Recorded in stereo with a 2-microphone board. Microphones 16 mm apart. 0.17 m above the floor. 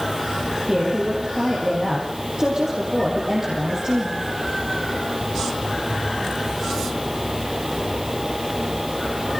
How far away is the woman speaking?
About 6 m.